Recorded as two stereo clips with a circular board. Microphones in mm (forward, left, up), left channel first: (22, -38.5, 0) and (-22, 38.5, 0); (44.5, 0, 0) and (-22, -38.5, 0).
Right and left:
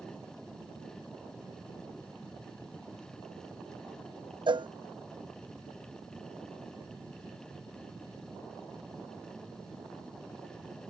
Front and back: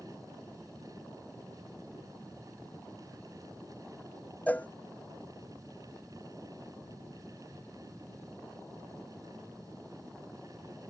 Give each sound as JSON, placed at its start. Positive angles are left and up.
{"t": 4.5, "sound": "a cowbell", "azimuth_deg": 100}